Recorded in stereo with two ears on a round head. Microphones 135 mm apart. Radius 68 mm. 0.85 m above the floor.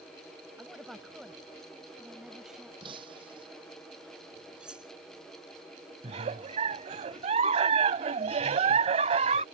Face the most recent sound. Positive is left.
turn(degrees=-45)  # may be behind; listen again after turning